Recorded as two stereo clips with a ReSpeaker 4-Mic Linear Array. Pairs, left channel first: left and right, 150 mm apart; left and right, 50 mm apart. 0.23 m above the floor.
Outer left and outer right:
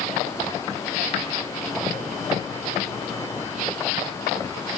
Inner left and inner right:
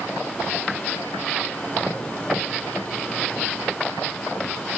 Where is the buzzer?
No buzzer in this recording.